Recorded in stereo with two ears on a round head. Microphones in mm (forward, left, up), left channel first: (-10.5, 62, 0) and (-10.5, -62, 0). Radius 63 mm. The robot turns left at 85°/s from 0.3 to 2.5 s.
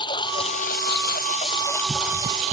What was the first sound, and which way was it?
A lawn mower, 35° left (ahead or behind).